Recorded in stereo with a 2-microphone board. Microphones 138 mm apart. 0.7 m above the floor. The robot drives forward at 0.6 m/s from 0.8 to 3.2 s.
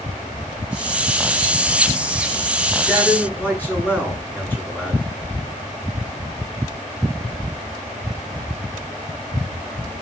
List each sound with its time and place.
2.9 s a man speaking: 15° left (ahead or behind), 8 m